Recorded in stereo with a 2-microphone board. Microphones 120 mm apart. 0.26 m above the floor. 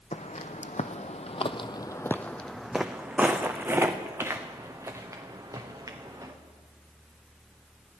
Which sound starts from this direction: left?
Footsteps, at 0.1 s.